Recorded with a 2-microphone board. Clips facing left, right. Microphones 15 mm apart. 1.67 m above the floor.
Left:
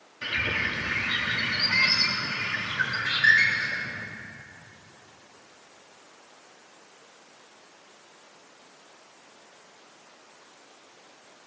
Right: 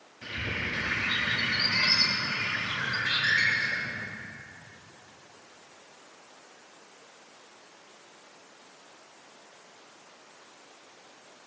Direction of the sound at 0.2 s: 60° left (ahead or behind).